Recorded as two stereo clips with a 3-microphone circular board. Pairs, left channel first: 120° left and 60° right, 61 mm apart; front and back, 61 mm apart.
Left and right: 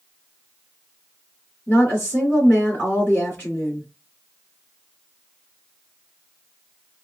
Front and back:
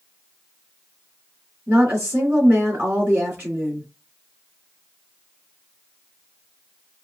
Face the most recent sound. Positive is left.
turn(degrees=150)